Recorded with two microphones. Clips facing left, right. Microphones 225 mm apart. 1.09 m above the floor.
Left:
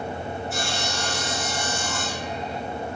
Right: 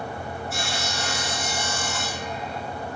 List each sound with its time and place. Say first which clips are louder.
0.5 s sawing: left 2 dB; centre (ahead or behind), 4.5 m